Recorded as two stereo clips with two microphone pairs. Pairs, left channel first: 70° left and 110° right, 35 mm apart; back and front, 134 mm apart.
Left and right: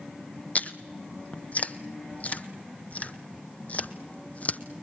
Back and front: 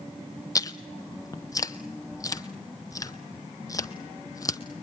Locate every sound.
0.6 s chewing: 115° left, 0.7 m